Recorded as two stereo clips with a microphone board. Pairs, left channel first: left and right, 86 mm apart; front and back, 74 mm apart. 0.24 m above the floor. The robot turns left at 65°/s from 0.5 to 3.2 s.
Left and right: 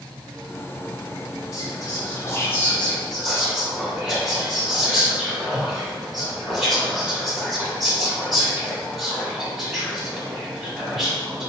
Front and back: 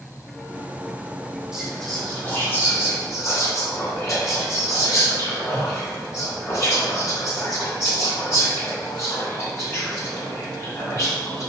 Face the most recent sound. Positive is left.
turn(degrees=-5)